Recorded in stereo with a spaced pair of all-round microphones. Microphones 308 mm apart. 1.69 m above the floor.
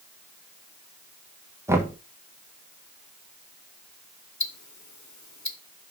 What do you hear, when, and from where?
1.7 s knocking: 10° right (ahead or behind), 1.1 m
4.4 s ticking: 65° left (ahead or behind), 0.8 m